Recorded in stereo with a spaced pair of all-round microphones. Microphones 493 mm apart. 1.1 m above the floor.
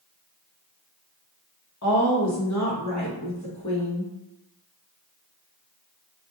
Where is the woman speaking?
35° left (ahead or behind), 0.9 m.